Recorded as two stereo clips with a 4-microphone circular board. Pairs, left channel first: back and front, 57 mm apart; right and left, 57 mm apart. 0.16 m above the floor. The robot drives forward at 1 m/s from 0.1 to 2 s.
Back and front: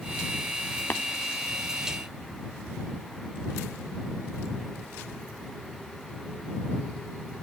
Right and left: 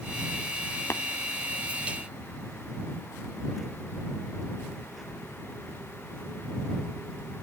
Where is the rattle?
No rattle in this recording.